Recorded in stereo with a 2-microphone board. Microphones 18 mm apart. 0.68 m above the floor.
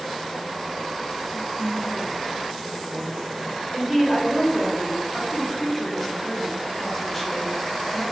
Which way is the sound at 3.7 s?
10° left (ahead or behind).